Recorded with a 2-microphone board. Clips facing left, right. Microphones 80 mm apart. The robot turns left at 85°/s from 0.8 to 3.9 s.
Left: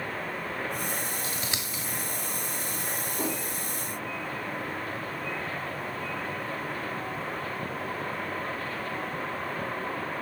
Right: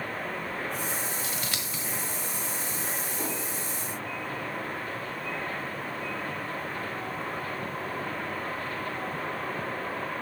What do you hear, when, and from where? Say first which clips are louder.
1.2 s scissors: even; 45° left (ahead or behind), 1.2 m; by 1.8 s 5° right (ahead or behind), 1.2 m
3.2 s a whoosh: left 4 dB; 20° left (ahead or behind), 1.6 m; by 3.4 s 5° right (ahead or behind), 1.6 m